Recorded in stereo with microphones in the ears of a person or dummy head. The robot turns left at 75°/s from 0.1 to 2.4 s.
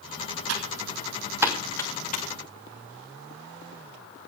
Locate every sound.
0.5 s typing on a keyboard: 75° right (ahead or behind), 2.5 m; by 2.2 s 55° left (ahead or behind), 2.5 m